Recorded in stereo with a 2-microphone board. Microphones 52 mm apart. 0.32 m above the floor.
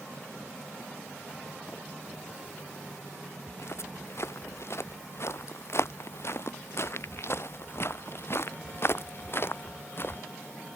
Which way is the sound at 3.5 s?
60° left (ahead or behind).